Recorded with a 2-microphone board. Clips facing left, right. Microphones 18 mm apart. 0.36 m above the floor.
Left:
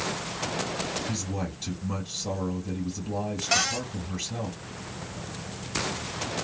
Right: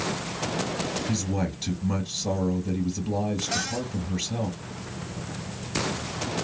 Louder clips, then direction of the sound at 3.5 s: Left 3 dB; 55° left (ahead or behind).